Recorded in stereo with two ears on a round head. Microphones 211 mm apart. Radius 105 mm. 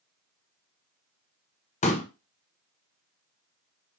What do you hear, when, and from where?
1.8 s a pop: 30° left (ahead or behind), 1.0 m